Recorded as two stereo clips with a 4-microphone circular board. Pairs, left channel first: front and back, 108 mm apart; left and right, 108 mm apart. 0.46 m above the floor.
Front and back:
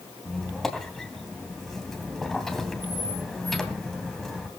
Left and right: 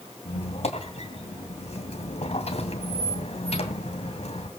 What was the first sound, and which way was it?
A squeak, 85° left.